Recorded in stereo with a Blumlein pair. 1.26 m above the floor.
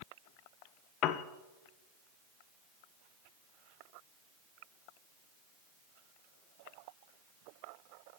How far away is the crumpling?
No crumpling in this recording.